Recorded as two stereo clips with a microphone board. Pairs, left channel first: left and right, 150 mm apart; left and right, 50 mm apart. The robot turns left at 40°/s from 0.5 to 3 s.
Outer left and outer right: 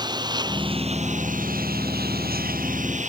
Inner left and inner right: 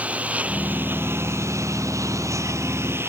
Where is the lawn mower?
30° right; by 3.1 s 130° right.